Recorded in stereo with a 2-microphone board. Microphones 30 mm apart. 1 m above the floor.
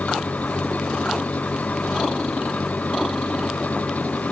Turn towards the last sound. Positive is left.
turn(degrees=60)  # may be behind; listen again after turning